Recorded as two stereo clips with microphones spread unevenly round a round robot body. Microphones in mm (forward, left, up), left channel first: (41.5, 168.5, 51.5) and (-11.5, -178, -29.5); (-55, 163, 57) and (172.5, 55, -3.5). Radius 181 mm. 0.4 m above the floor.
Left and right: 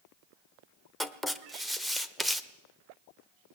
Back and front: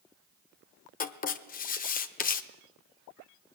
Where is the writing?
160° right, 0.8 m.